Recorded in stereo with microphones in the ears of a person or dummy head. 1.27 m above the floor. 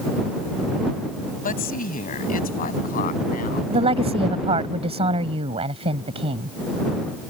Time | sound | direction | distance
1.4 | a woman speaking | 40° left (ahead or behind) | ?
3.7 | a woman speaking | 30° right (ahead or behind) | ?